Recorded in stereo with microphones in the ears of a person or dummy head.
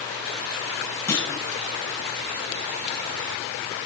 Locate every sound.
1.1 s a clunk: 10° left (ahead or behind), 1.4 m